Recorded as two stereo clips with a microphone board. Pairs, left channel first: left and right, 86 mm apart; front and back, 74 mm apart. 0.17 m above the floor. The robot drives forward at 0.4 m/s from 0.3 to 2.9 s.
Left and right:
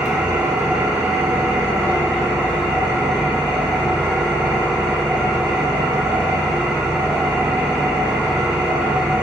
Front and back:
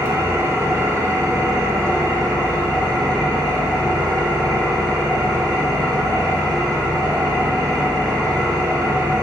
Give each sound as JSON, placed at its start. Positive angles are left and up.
{"t": 0.0, "sound": "an engine running", "azimuth_deg": -160, "distance_m": 1.1}